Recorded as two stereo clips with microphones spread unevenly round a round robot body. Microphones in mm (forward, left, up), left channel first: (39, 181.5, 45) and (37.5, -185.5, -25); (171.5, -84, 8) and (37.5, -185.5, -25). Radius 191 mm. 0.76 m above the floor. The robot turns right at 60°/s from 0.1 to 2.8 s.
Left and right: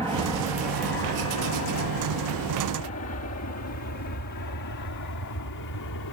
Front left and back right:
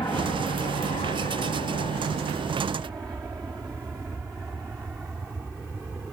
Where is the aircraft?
10° right; by 6.1 s 130° left.